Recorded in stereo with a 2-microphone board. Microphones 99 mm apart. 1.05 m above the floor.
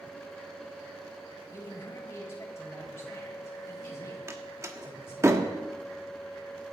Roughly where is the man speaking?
Left.